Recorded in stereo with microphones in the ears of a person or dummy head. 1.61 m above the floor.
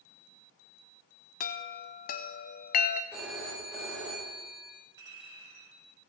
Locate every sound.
1.4 s a chime: 45° left (ahead or behind), 0.5 m
3.1 s a phone ringing: 10° right (ahead or behind), 3.5 m
5.0 s a clink: 25° right (ahead or behind), 6.5 m